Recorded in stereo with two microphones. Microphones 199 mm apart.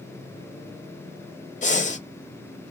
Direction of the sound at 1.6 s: 40° left (ahead or behind).